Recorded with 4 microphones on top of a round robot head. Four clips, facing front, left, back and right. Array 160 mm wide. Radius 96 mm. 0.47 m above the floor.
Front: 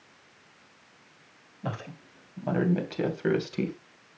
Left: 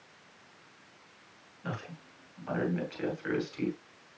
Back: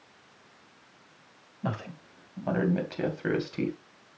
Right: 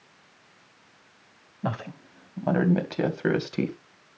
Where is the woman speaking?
100° right, 3.5 m; by 3.8 s 80° right, 3 m.